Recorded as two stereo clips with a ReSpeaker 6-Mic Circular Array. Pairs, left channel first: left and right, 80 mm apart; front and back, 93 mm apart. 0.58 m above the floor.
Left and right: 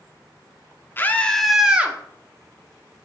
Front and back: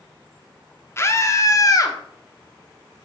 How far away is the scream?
About 1.0 m.